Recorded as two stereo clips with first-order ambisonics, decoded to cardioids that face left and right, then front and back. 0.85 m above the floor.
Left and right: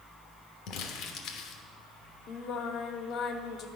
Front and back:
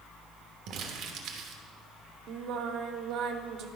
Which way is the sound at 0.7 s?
130° left.